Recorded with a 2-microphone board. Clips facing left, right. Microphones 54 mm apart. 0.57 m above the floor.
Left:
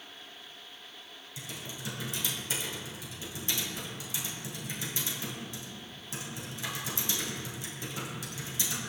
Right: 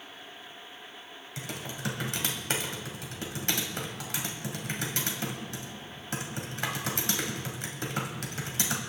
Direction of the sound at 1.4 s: 65° right (ahead or behind).